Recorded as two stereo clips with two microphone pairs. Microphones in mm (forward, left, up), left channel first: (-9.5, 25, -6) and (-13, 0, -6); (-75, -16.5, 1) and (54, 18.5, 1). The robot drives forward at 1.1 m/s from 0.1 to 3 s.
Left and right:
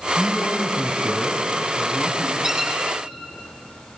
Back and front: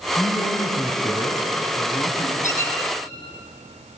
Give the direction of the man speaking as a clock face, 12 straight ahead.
9 o'clock.